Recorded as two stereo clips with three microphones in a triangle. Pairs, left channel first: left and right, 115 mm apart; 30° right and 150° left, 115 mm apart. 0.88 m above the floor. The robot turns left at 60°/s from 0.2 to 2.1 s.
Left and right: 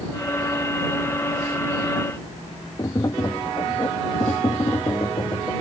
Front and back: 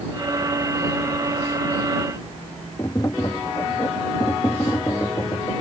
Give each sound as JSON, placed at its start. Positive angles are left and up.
{"t": 2.8, "sound": "tapping", "azimuth_deg": 30}